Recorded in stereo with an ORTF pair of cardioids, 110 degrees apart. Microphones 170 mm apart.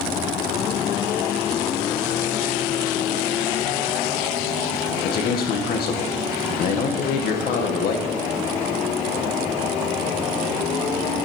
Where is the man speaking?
65° left, 2.0 m.